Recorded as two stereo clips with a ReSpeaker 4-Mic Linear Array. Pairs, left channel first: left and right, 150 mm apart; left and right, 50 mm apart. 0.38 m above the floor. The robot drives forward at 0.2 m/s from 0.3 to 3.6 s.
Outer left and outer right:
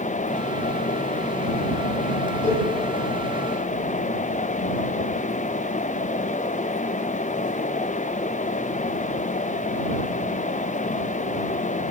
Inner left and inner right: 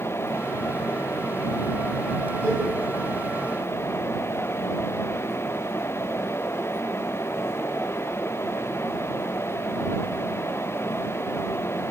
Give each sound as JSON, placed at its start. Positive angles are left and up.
{"t": 2.4, "sound": "a cowbell", "side_deg": 35, "distance_m": 4.0}